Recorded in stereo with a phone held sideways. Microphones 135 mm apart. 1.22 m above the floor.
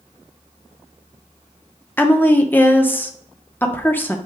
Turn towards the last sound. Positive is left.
turn(degrees=15)  # may be behind; listen again after turning